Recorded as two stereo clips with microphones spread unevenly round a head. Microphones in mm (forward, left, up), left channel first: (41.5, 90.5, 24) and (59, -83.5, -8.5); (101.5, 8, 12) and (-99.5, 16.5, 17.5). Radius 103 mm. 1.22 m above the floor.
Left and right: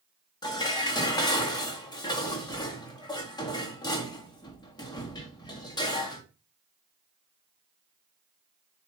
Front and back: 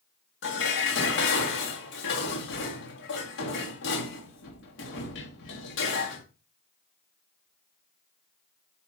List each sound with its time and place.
0.4 s dishes clattering: 30° left, 1.7 m